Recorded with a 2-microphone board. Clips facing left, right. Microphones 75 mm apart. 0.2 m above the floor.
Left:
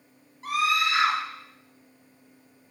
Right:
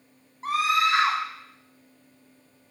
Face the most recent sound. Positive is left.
turn(degrees=-25)  # may be behind; listen again after turning